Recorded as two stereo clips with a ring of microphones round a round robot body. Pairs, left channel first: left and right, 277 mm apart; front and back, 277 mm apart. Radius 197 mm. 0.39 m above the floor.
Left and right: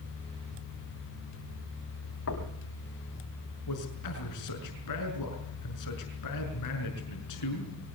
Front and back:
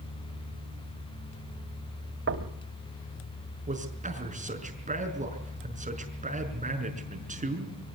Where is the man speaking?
115° left, 5.5 m.